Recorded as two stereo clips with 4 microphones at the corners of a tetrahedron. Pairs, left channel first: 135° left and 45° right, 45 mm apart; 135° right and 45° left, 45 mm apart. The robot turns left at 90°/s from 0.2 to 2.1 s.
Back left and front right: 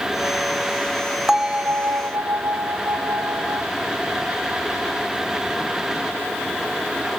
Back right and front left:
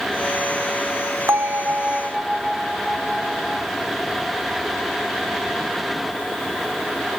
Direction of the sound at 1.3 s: 35° left.